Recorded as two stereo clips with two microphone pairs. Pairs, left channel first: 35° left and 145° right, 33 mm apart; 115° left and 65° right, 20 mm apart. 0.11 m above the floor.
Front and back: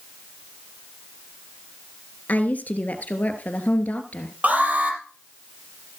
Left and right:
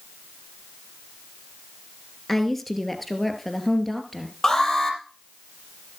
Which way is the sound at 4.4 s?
Straight behind.